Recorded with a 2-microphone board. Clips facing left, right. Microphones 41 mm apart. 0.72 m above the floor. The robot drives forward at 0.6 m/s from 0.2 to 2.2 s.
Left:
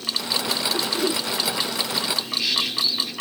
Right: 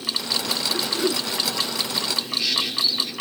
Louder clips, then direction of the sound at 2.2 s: Even; 10° left (ahead or behind).